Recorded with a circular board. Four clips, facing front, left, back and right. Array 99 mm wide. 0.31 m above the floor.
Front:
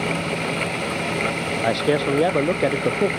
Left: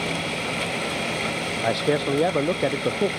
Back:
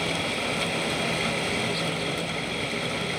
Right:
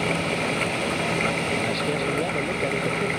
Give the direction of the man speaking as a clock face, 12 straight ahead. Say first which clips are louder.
Left 3 dB, front 9 dB; 11 o'clock.